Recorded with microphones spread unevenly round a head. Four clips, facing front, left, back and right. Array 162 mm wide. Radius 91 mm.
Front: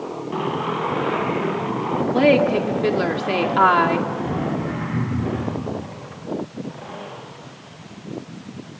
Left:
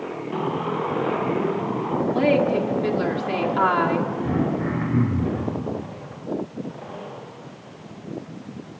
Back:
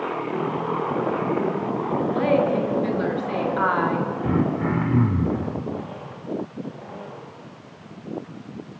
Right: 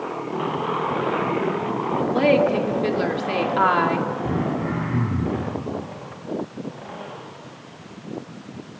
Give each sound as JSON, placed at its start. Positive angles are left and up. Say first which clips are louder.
{"t": 2.1, "sound": "a woman speaking", "louder": "right 2 dB, front 5 dB", "azimuth_deg": -25, "distance_m": 2.5}
{"t": 4.2, "sound": "throat clearing", "louder": "left 1 dB, back 2 dB", "azimuth_deg": -175, "distance_m": 3.5}